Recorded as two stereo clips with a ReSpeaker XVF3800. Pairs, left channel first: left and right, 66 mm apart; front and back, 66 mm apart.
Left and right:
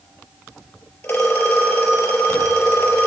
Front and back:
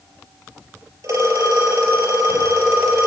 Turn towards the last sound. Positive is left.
turn(degrees=150)